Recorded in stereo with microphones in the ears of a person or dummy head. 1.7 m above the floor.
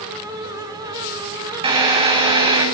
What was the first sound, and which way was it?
A drill, 25° right (ahead or behind).